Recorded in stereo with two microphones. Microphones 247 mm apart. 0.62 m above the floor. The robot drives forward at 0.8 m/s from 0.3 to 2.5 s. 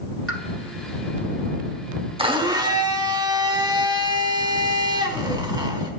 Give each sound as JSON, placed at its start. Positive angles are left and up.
{"t": 0.3, "sound": "a pop", "side_deg": 65, "distance_m": 1.2}
{"t": 2.2, "sound": "a blender", "side_deg": -20, "distance_m": 0.9}